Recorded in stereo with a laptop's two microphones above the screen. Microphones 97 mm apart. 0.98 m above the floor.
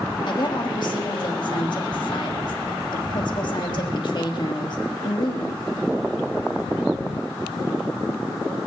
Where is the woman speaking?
50° left (ahead or behind), 1.4 m.